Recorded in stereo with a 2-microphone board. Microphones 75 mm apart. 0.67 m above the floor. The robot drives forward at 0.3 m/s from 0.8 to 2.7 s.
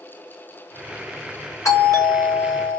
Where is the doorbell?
40° left (ahead or behind), 2 m.